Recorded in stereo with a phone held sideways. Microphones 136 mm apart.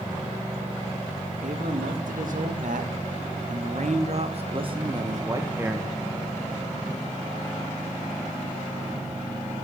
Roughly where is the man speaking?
Right.